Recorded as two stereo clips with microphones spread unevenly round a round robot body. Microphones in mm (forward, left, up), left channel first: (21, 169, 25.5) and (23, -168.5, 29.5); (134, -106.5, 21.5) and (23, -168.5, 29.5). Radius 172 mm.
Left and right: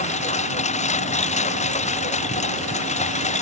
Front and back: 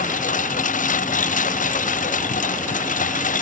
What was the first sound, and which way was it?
A lawn mower, 20° left.